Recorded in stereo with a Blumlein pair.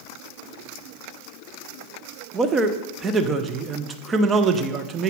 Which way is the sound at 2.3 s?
20° right.